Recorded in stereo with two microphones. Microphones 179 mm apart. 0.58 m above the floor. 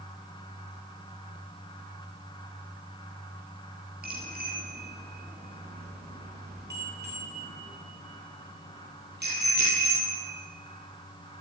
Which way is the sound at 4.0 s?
65° right (ahead or behind).